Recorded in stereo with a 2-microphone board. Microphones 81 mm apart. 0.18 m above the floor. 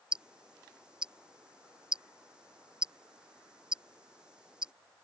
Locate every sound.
0.1 s ticking: 10° right (ahead or behind)